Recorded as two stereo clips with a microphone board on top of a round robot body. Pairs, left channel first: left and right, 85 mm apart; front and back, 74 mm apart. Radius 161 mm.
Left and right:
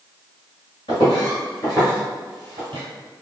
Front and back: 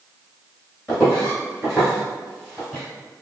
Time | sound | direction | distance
0.9 | footsteps | 80° left | 1.1 m